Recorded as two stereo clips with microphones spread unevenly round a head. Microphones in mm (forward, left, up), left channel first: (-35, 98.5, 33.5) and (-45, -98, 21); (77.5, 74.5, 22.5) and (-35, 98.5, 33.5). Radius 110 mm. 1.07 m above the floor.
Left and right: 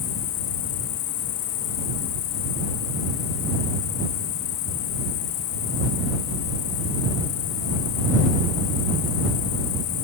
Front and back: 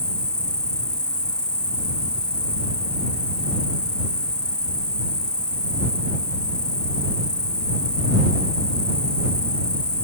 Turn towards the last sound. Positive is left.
turn(degrees=70)